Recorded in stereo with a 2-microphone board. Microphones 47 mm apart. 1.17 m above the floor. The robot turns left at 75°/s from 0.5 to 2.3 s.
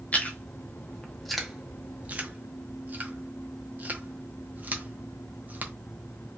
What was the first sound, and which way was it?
Chewing, 30° left (ahead or behind).